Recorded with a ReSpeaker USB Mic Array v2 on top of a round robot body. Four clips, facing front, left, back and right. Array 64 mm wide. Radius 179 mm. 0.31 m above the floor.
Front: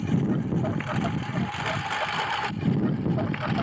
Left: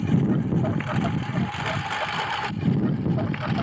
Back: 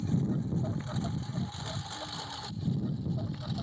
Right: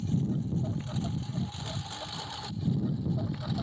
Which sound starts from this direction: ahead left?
A lawn mower, at 0.0 s.